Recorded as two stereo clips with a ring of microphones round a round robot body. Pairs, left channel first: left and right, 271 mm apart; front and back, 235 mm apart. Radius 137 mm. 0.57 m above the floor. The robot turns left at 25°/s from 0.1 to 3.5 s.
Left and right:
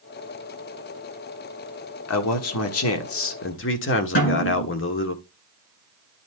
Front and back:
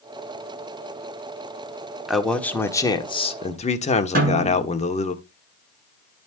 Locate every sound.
2.1 s a man speaking: 90° left, 1.5 m; by 5.2 s 55° left, 1.5 m
4.2 s a snare drum: 130° left, 8.5 m